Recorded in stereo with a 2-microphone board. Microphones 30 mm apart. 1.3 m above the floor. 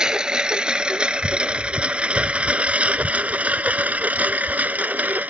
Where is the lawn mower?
30° right (ahead or behind); by 5.3 s 70° right (ahead or behind).